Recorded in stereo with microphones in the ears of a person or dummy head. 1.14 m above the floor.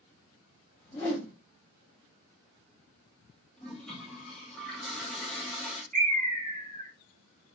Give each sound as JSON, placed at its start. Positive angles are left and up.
{"t": 0.8, "sound": "a whoosh", "side_deg": 10, "distance_m": 1.0}
{"t": 3.6, "sound": "a toilet flushing", "side_deg": 0, "distance_m": 0.6}
{"t": 5.9, "sound": "a bird", "side_deg": -40, "distance_m": 1.0}